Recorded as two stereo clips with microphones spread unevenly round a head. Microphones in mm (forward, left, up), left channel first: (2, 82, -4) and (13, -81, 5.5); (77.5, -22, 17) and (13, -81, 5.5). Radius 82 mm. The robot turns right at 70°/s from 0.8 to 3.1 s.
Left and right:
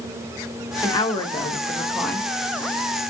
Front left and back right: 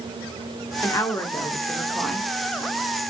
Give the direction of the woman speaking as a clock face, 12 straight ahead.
10 o'clock.